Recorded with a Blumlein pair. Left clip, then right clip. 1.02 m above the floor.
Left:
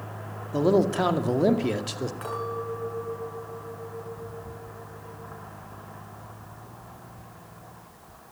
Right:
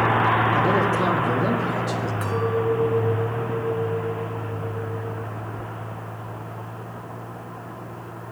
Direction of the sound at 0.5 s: 20° left.